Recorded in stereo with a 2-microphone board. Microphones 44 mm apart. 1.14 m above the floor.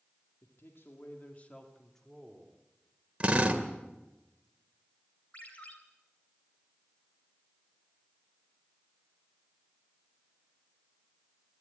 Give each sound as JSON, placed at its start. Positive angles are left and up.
{"t": 0.4, "sound": "a man speaking", "side_deg": 70, "distance_m": 2.0}
{"t": 3.2, "sound": "a drill", "side_deg": -30, "distance_m": 2.0}
{"t": 5.3, "sound": "a ringtone", "side_deg": 35, "distance_m": 3.0}